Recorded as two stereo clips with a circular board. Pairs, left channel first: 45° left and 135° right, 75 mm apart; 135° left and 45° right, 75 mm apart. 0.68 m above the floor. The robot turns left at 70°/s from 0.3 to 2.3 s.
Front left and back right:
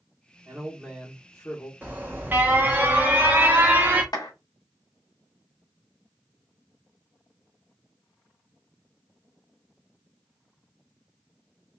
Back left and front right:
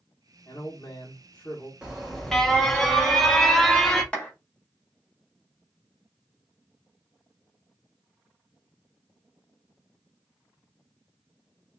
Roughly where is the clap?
Ahead left.